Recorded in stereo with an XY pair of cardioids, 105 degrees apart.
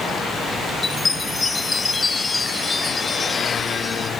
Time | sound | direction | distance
0.8 | a chime | 25° left | ?